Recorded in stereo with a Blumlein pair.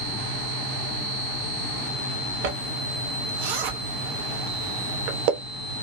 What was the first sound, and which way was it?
A zipper, 45° right.